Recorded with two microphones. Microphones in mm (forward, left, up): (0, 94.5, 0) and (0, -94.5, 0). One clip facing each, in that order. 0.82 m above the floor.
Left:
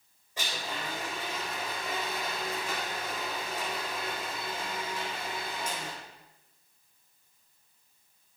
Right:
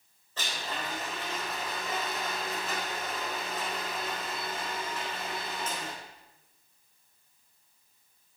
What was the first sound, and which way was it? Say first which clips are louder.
A blender: even; 15° left (ahead or behind).